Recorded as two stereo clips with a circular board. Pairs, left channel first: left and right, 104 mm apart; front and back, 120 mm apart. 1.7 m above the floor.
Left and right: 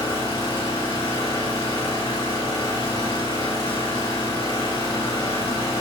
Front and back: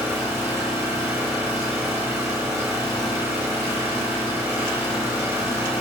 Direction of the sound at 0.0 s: 115° left.